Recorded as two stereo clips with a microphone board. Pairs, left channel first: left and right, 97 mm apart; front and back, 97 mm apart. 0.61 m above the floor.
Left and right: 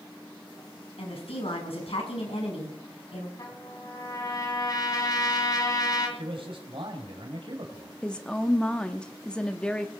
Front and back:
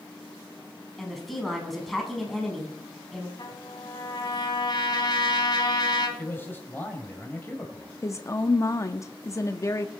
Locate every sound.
1.0 s a woman speaking: 90° left, 4.5 m
3.4 s a trumpet: 40° left, 2.5 m
6.2 s a man speaking: 65° right, 3 m
8.0 s a woman speaking: 20° left, 0.7 m